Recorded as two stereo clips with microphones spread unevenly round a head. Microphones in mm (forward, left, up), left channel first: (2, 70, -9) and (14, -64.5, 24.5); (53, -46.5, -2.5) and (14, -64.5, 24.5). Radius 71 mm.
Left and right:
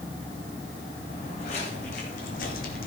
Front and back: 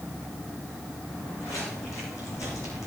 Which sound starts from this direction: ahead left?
Footsteps, at 1.1 s.